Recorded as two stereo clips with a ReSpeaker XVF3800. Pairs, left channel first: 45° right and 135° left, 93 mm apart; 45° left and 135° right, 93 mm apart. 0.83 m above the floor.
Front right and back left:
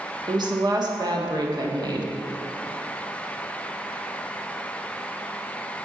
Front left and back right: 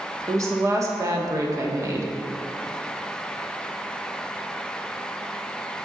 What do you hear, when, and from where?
0.3 s a woman speaking: 175° left, 1.4 m